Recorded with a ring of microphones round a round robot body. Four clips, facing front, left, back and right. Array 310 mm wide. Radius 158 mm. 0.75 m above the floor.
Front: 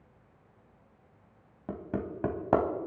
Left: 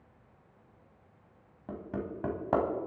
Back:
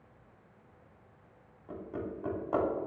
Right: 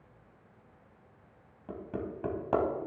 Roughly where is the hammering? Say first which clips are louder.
Even, front 4 dB; ahead.